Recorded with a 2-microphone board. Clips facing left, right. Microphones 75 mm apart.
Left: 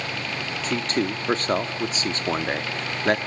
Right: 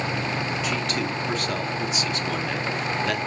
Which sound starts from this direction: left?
A man speaking, at 0.6 s.